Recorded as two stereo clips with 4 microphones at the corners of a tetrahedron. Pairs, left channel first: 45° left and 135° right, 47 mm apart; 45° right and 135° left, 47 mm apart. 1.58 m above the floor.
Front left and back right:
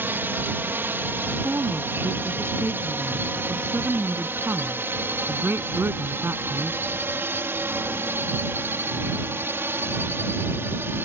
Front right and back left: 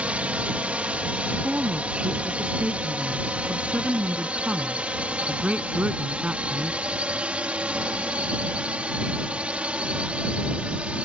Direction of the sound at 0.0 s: 165° right.